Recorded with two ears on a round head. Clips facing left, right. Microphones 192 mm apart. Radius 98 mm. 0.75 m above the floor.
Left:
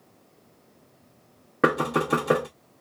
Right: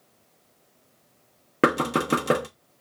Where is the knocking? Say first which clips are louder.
Right 1 dB; 35° right (ahead or behind), 0.8 m.